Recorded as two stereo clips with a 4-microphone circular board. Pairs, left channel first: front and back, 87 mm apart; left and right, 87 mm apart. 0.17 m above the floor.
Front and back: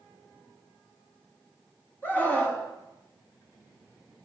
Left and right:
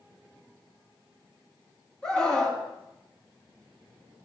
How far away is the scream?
About 1.2 m.